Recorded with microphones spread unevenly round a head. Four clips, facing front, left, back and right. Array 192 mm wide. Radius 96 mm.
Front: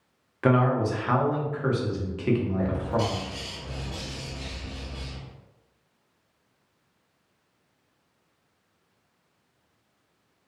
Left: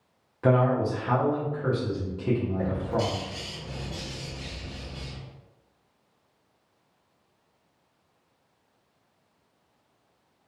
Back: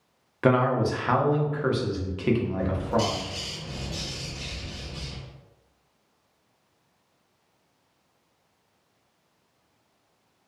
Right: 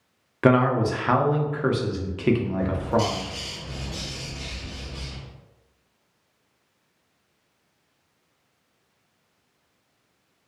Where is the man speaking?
100° right, 0.6 m.